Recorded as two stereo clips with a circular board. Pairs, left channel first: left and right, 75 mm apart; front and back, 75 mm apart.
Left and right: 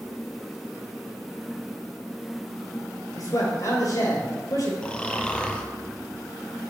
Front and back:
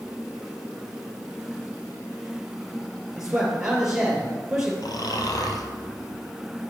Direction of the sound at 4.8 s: 15° left.